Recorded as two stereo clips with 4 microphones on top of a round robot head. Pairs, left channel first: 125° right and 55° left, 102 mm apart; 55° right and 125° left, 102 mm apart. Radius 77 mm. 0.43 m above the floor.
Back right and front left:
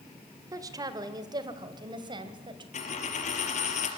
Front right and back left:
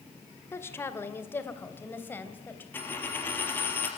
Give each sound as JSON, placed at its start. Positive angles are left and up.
{"t": 0.5, "sound": "a woman speaking", "azimuth_deg": 5, "distance_m": 1.7}
{"t": 2.7, "sound": "a dropped coin", "azimuth_deg": -130, "distance_m": 3.0}